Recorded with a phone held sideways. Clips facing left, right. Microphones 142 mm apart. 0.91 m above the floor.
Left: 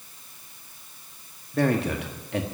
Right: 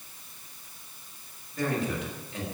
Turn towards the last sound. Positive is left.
turn(degrees=70)  # may be behind; listen again after turning